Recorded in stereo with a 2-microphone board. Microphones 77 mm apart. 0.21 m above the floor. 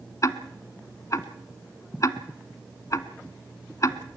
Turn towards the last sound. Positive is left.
turn(degrees=45)  # may be behind; listen again after turning